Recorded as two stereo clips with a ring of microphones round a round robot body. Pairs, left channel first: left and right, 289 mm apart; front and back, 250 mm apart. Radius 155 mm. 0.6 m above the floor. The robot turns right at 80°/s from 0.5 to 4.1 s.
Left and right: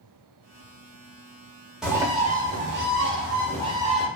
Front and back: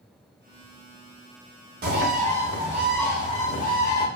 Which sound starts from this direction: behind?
A bird, at 1.8 s.